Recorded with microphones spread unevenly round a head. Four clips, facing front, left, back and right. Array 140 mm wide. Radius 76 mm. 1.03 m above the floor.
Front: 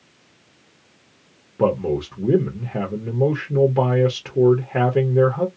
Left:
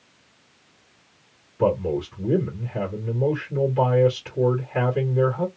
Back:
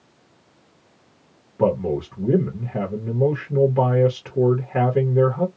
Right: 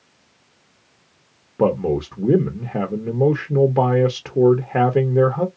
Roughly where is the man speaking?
Right.